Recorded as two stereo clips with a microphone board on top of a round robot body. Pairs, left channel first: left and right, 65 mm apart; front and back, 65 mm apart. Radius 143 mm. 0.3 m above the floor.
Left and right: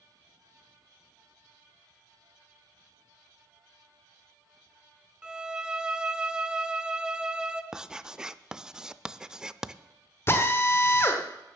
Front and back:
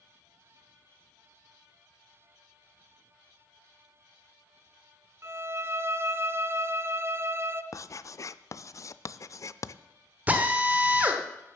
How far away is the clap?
I don't hear a clap.